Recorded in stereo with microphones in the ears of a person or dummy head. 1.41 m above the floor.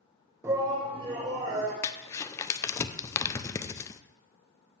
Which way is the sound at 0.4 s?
15° right (ahead or behind).